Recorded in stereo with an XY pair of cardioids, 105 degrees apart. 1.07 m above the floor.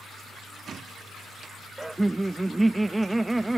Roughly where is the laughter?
Ahead.